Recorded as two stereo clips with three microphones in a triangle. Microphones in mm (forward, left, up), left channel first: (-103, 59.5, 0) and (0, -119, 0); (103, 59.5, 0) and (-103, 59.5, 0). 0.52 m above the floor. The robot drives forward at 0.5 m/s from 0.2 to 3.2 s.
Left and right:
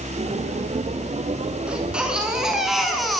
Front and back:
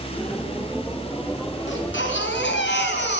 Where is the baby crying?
25° left, 4 m; by 3.2 s 30° left, 3.5 m.